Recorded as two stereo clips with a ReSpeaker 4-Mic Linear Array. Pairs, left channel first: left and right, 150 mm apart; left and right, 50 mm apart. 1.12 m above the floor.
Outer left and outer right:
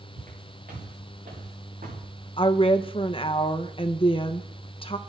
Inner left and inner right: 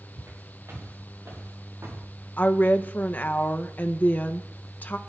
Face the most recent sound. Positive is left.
turn(degrees=35)  # may be behind; listen again after turning